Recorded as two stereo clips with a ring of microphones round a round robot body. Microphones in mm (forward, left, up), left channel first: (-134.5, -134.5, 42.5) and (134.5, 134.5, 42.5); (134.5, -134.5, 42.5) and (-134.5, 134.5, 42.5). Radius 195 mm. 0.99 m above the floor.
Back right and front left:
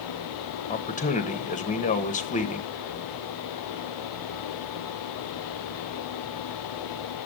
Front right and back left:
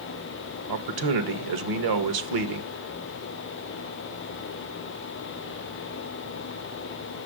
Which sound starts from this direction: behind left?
A man speaking, at 0.7 s.